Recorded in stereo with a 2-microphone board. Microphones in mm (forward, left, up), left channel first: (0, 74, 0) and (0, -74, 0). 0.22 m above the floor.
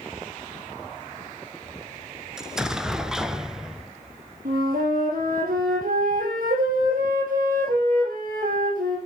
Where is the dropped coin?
No dropped coin in this recording.